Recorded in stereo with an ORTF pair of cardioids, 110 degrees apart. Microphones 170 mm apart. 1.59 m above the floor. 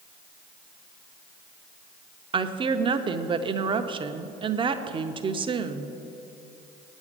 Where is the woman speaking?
30° right, 0.7 m.